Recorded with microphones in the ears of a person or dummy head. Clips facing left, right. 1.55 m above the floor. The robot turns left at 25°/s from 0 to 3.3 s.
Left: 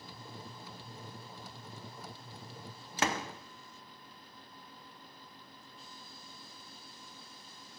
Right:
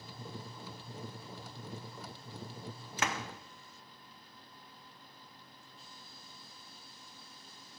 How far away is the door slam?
About 0.7 m.